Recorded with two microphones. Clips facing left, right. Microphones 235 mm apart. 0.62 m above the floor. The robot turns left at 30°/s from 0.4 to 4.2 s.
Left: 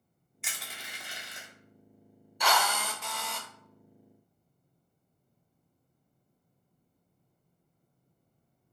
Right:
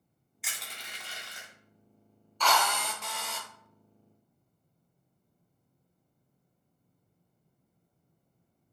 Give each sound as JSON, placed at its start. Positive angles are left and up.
{"t": 0.4, "sound": "crushing", "side_deg": 0, "distance_m": 0.8}
{"t": 2.4, "sound": "a drill", "azimuth_deg": 20, "distance_m": 0.6}